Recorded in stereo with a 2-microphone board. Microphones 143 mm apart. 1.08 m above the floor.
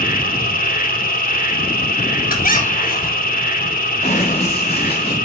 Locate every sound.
0.0 s an insect: 85° left, 2.5 m
2.3 s a squeak: 85° left, 4 m
4.0 s running footsteps: 50° left (ahead or behind), 7 m; by 5.2 s 40° left (ahead or behind), 6.5 m